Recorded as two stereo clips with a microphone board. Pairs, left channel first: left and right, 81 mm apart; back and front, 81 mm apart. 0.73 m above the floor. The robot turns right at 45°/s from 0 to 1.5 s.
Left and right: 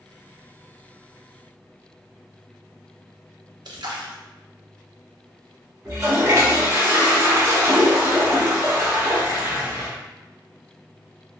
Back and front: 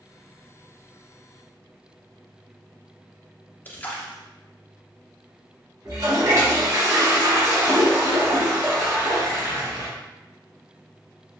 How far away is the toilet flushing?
About 1.1 m.